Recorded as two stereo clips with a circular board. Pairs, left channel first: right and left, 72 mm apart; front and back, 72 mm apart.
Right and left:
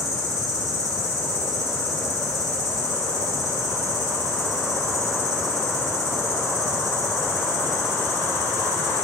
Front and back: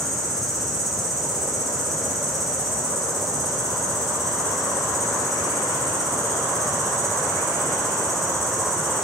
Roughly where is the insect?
Right.